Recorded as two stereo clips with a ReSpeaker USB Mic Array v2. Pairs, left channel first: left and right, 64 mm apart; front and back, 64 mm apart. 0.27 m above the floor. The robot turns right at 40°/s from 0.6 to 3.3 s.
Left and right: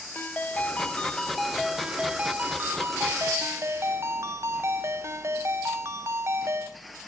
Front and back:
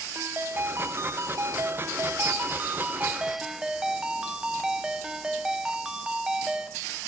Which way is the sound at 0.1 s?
150° left.